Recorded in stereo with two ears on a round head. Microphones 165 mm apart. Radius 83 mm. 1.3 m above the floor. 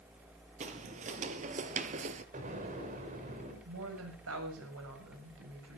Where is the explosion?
40° right (ahead or behind), 5.5 m.